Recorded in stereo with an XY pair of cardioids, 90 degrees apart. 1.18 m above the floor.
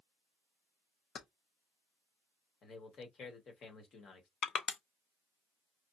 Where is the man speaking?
65° left, 1.4 m.